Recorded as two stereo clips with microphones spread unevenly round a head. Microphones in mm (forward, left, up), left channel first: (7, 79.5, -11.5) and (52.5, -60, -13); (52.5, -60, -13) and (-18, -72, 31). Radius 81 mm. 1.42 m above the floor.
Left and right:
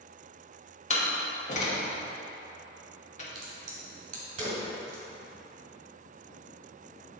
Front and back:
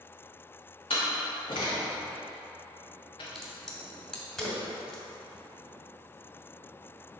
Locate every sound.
0.9 s a door slam: 75° left, 1.2 m
3.4 s a crack: 105° right, 1.7 m